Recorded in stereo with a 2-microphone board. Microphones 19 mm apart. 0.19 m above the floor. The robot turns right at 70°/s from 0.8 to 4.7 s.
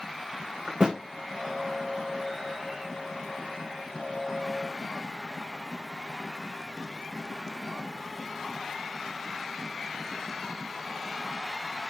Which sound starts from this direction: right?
A thud, at 0.7 s.